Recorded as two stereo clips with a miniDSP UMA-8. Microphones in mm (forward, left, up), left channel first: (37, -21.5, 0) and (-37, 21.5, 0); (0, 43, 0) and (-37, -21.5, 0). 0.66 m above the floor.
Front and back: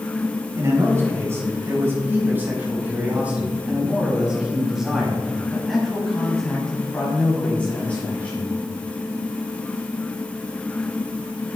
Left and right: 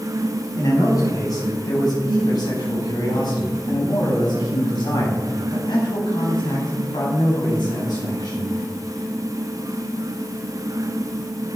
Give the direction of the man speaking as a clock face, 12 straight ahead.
9 o'clock.